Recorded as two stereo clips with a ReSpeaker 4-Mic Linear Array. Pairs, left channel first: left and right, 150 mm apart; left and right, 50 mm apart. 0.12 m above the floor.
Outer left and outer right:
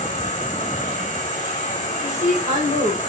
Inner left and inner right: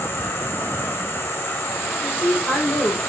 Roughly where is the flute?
No flute in this recording.